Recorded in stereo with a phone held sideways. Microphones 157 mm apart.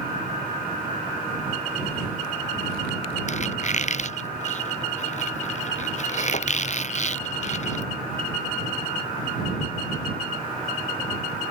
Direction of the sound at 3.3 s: 50° left (ahead or behind).